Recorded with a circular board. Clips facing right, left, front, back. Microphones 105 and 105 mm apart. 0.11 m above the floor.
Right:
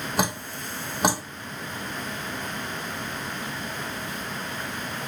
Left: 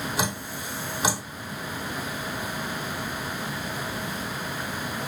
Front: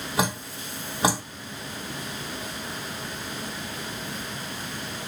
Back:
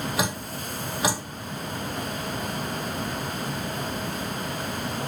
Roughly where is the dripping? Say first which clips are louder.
Right 2 dB, front 1 dB; ahead right.